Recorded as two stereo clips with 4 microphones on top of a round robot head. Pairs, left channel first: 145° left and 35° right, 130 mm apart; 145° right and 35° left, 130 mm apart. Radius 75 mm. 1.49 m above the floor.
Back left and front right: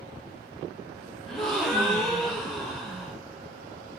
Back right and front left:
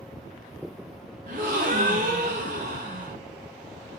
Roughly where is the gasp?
Ahead left.